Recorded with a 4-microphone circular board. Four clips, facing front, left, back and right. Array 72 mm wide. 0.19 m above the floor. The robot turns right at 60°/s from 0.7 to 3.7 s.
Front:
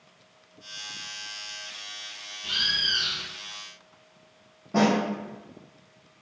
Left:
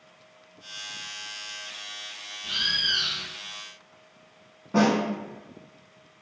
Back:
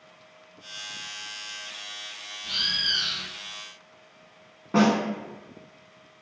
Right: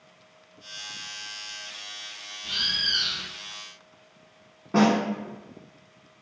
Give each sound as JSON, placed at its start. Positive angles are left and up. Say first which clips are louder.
{"t": 2.4, "sound": "a bird", "louder": "left 2 dB, front 2 dB", "azimuth_deg": 25, "distance_m": 0.8}
{"t": 4.7, "sound": "a snare drum", "louder": "right 1 dB, back 1 dB", "azimuth_deg": -150, "distance_m": 0.7}